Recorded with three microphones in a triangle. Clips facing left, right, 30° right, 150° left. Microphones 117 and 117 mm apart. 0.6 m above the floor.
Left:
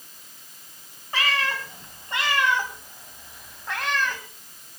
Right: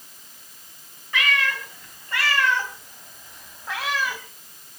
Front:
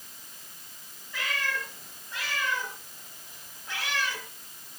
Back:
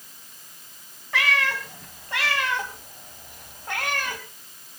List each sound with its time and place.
1.1 s a cat meowing: 145° left, 2.5 m; by 4.2 s 170° right, 2 m